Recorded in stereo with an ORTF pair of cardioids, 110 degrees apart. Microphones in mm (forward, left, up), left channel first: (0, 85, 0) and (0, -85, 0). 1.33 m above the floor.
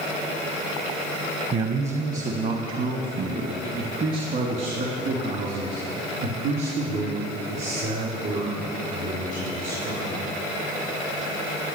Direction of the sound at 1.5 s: 40° right.